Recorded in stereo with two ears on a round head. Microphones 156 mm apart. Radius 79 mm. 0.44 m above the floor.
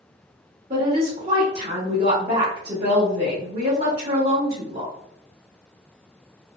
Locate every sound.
0.7 s a woman speaking: 35° right (ahead or behind), 1.1 m